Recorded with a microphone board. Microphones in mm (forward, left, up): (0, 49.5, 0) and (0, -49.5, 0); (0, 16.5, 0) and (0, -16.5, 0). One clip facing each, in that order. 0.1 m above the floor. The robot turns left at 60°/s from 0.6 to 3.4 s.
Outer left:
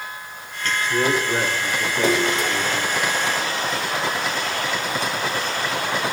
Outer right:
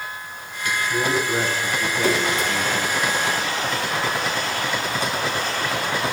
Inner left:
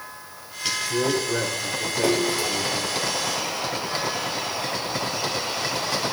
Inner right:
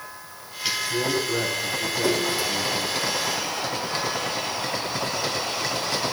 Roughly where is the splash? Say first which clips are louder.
Outer left 2 dB, inner left 2 dB; left.